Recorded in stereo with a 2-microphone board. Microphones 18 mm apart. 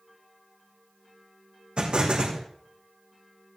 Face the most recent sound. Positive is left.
turn(degrees=-65)  # may be behind; listen again after turning